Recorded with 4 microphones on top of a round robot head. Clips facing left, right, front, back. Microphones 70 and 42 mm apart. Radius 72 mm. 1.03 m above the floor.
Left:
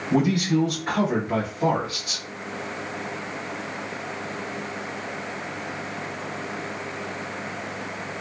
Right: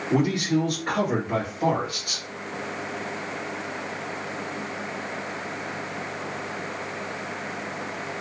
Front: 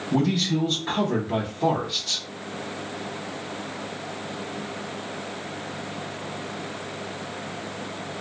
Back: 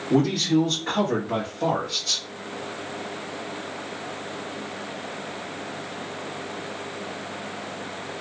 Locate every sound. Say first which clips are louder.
0.1 s a man speaking: left 1 dB, back 3 dB; 160° right, 1.8 m; by 2.2 s 160° left, 1.5 m